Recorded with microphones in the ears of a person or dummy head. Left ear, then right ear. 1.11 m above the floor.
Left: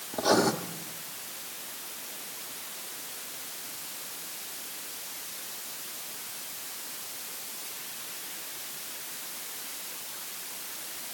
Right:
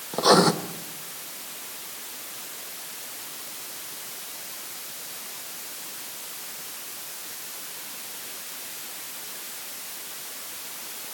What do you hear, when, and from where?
0.1 s writing: 40° right (ahead or behind), 1.3 m